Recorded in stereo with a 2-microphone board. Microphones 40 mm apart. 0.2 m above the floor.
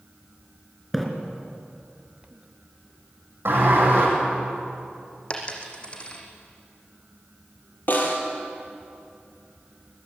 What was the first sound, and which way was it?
A splash, centre (ahead or behind).